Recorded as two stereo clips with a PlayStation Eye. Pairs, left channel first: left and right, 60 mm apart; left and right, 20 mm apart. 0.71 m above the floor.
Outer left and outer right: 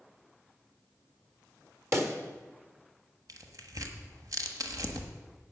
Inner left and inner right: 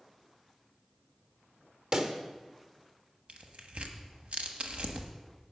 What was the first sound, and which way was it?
A pop, 50° right (ahead or behind).